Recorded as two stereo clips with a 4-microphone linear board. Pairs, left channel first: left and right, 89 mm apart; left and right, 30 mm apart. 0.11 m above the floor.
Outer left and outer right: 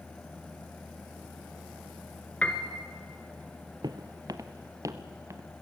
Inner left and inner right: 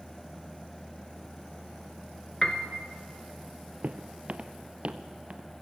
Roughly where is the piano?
Centre.